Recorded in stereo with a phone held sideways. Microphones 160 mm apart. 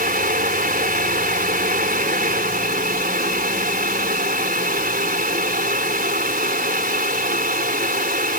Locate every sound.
0.0 s a fan: 65° right (ahead or behind)